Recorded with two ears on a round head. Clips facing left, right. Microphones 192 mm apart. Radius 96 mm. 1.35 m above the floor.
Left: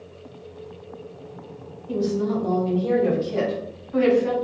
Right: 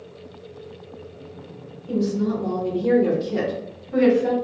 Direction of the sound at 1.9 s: 50° right (ahead or behind).